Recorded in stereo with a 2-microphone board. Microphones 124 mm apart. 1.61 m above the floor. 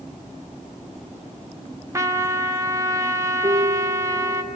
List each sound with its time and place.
1.9 s a trumpet: 25° right (ahead or behind), 1.1 m
3.4 s a piano: 35° right (ahead or behind), 0.8 m